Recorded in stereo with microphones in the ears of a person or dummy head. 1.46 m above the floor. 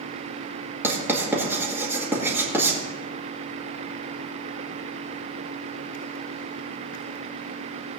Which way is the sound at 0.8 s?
15° right (ahead or behind).